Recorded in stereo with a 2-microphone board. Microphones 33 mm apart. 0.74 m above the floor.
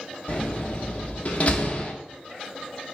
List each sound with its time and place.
0.3 s a door slam: 40° left (ahead or behind), 0.9 m